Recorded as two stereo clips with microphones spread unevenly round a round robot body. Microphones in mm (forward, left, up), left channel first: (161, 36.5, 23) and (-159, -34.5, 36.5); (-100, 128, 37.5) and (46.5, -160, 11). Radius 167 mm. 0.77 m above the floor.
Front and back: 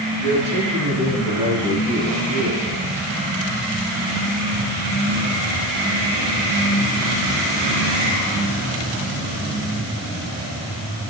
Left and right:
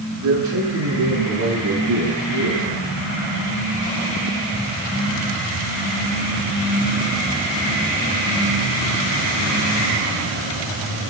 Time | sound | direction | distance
0.2 | a man speaking | 100° right | 8.5 m